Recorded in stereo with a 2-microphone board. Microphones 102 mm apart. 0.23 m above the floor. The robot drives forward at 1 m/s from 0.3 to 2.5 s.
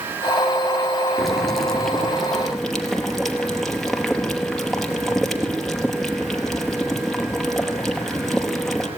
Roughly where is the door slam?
No door slam in this recording.